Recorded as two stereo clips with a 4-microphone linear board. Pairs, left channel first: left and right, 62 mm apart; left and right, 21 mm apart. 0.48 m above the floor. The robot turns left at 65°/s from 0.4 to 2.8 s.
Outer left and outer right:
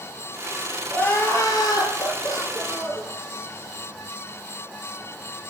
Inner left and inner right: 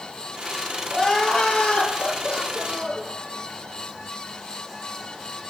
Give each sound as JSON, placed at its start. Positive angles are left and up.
{"t": 0.9, "sound": "crying", "azimuth_deg": 160, "distance_m": 2.5}